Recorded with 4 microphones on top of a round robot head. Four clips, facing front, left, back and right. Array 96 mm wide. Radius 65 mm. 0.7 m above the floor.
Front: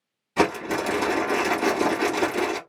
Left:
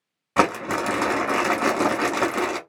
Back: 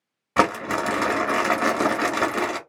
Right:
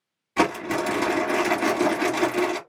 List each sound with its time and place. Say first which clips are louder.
0.4 s crumpling: left 2 dB, back 2 dB; 135° left, 1.3 m